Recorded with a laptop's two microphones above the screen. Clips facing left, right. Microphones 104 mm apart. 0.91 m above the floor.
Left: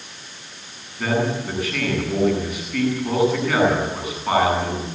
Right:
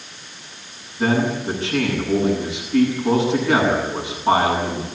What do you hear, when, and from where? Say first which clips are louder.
1.0 s a man speaking: right 3 dB; 25° right (ahead or behind), 9.5 m